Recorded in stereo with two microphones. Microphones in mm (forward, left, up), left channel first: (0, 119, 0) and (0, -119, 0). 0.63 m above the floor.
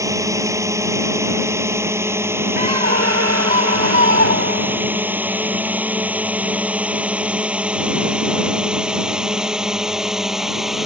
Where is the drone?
15° right (ahead or behind); by 10.9 s centre (ahead or behind).